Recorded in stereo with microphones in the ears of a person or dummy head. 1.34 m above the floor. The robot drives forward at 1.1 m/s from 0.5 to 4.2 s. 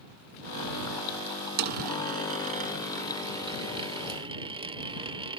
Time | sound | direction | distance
1.6 | a dropped coin | 45° right (ahead or behind) | ?